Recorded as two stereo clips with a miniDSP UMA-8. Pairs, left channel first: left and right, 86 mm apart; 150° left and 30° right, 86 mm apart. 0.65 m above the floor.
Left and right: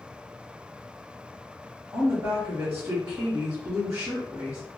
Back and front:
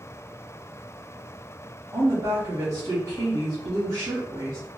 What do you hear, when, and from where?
1.9 s a woman speaking: 55° right, 0.9 m